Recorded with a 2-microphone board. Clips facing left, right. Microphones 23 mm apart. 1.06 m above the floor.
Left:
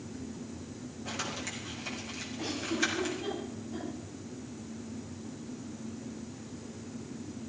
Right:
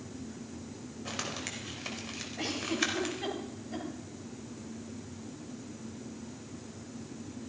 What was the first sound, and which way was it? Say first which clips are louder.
Crumpling: even; 35° right (ahead or behind).